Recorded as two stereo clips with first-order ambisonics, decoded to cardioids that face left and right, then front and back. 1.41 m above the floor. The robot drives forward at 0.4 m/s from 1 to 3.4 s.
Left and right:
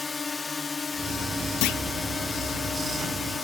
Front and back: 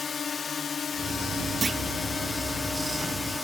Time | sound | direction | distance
0.0 | a drone | 35° left | ?
1.6 | a clunk | 105° left | ?